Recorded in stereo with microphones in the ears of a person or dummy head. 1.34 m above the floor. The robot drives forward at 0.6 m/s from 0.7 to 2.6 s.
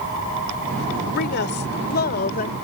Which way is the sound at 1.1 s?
60° left (ahead or behind).